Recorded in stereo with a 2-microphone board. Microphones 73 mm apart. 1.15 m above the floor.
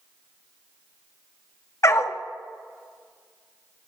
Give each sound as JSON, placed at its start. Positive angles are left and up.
{"t": 1.8, "sound": "a dog barking", "side_deg": 40, "distance_m": 0.7}